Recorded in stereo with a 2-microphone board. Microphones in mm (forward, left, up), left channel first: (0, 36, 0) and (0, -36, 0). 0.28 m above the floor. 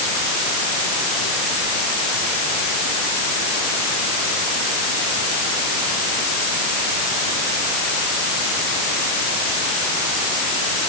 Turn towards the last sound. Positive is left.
No sound to turn to.